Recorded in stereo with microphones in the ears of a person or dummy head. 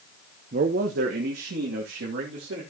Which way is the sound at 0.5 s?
35° right (ahead or behind).